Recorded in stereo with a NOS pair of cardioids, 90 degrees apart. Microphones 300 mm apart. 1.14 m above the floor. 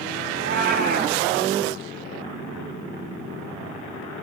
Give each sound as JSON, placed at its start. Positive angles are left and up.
{"t": 0.3, "sound": "a cat meowing", "azimuth_deg": -35, "distance_m": 3.0}